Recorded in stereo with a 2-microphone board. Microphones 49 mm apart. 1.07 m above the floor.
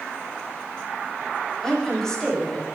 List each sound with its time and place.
1.6 s a woman speaking: 10° left (ahead or behind), 6.5 m